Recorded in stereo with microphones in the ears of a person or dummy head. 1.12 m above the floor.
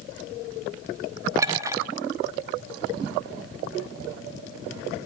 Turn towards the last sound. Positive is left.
turn(degrees=-15)  # may be behind; listen again after turning